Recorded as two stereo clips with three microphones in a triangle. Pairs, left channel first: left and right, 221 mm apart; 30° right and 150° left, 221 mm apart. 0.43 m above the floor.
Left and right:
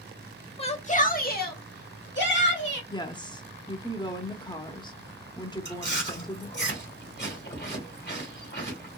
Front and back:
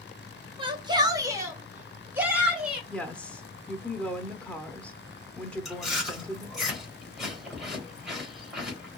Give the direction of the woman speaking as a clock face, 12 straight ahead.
10 o'clock.